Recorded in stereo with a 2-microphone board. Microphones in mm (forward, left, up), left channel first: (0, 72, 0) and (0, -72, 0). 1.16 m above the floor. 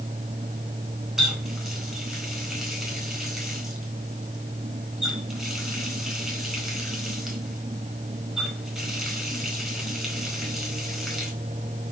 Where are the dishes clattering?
I don't hear dishes clattering.